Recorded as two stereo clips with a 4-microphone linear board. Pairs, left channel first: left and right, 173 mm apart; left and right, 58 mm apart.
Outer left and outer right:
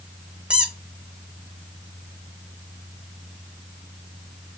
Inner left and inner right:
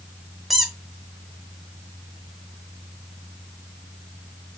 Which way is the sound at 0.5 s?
5° right (ahead or behind).